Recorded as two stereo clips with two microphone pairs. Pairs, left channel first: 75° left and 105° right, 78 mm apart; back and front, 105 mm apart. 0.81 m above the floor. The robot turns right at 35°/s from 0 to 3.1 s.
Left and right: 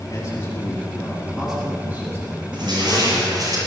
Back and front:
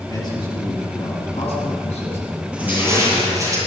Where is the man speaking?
130° left, 9 m; by 3.5 s 125° right, 9 m.